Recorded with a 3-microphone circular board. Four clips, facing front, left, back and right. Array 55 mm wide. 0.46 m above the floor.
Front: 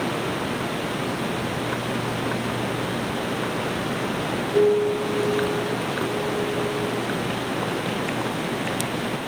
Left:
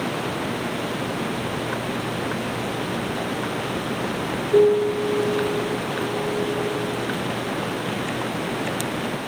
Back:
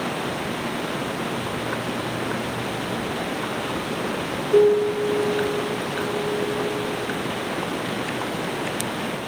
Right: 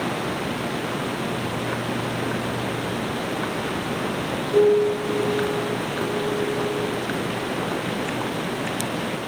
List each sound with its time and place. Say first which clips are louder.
4.5 s a piano: left 1 dB, back 3 dB; 140° left, 10 m